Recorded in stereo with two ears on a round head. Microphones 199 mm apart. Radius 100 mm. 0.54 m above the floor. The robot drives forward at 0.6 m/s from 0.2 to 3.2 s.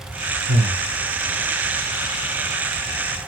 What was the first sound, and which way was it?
Breathing, 60° right (ahead or behind).